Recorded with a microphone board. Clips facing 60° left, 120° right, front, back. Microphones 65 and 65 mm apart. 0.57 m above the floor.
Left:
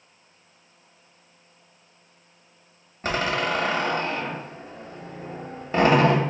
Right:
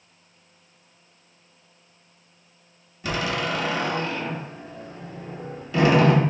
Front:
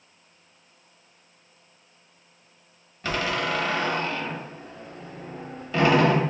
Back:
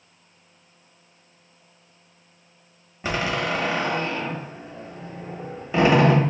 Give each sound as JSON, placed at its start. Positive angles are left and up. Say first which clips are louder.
{"t": 3.0, "sound": "a door slam", "louder": "left 2 dB, back 1 dB", "azimuth_deg": 110, "distance_m": 0.5}